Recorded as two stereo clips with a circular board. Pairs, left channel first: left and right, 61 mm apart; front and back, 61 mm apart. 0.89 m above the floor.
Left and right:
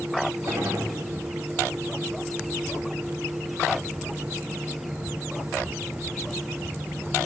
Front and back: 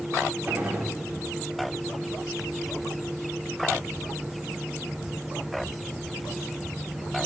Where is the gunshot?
120° right, 3 m.